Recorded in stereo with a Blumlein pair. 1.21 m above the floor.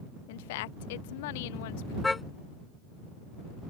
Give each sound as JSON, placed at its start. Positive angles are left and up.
{"t": 0.3, "sound": "a woman speaking", "azimuth_deg": 50}
{"t": 2.0, "sound": "a car horn", "azimuth_deg": 10}